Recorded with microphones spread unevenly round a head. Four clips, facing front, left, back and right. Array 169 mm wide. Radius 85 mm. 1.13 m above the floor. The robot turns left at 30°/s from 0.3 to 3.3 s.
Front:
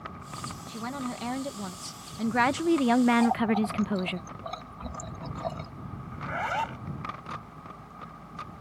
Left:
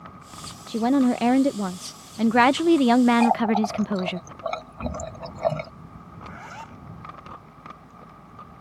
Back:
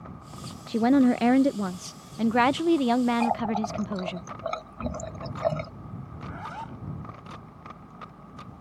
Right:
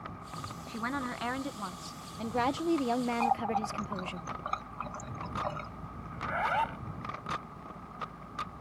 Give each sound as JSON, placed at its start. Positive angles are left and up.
{"t": 0.7, "sound": "a woman speaking", "azimuth_deg": 145}
{"t": 3.2, "sound": "a running tap", "azimuth_deg": 125}
{"t": 6.1, "sound": "a zipper", "azimuth_deg": -35}